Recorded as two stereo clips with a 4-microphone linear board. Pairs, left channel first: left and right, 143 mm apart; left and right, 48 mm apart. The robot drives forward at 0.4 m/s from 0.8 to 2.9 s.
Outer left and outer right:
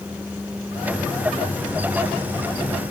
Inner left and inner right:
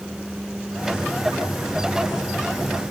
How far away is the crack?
No crack in this recording.